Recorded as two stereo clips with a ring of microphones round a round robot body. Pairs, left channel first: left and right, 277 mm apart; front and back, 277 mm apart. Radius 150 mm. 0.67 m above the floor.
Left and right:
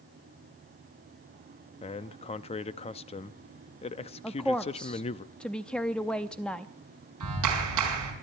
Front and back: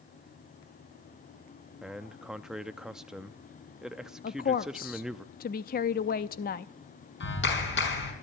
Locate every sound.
1.8 s a man speaking: 95° left, 0.5 m
4.2 s a woman speaking: 5° left, 0.5 m
7.2 s a clap: 50° right, 5 m